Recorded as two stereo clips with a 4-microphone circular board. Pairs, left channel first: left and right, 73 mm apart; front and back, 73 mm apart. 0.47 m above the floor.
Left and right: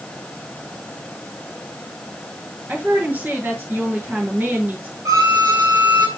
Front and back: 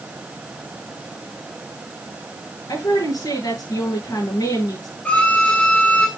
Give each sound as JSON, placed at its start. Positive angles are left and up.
{"t": 2.7, "sound": "a woman speaking", "azimuth_deg": -30, "distance_m": 7.5}
{"t": 5.0, "sound": "a violin", "azimuth_deg": -65, "distance_m": 2.5}